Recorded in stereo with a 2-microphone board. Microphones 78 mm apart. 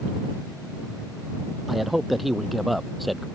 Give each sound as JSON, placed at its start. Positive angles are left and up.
{"t": 1.7, "sound": "a man speaking", "side_deg": 0}